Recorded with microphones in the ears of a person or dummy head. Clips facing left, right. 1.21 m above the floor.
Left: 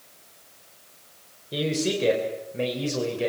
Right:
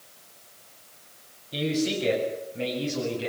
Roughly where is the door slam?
No door slam in this recording.